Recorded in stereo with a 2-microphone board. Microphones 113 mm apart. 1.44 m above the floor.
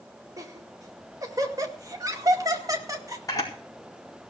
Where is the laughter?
35° right (ahead or behind), 2 m.